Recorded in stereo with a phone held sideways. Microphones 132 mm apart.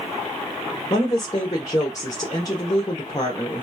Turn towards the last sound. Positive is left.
turn(degrees=25)  # may be behind; listen again after turning